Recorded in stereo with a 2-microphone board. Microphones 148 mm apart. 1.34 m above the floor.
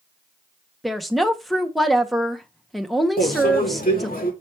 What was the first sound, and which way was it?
A woman speaking, centre (ahead or behind).